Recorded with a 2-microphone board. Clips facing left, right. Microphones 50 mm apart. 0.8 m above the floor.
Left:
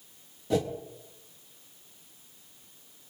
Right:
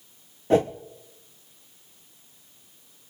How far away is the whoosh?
About 0.8 m.